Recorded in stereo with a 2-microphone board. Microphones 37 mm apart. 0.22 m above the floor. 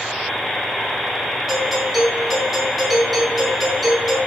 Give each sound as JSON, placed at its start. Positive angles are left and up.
{"t": 1.5, "sound": "a doorbell", "side_deg": 5, "distance_m": 5.0}